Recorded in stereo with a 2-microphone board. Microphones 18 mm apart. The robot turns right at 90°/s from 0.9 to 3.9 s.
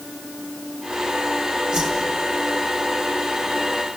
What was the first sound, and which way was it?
A whoosh, 70° right (ahead or behind).